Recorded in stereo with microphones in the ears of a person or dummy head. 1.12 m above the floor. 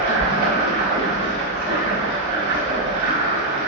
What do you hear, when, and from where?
0.0 s running water: 50° right (ahead or behind), 1.6 m